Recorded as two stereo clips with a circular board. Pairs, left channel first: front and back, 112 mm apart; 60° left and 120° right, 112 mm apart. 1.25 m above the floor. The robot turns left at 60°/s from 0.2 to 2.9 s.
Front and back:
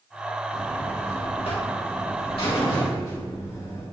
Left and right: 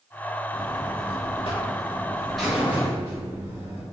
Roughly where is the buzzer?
Left.